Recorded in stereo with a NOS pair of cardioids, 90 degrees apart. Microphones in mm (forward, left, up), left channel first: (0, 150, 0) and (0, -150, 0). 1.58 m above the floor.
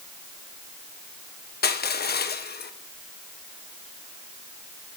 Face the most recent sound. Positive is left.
turn(degrees=30)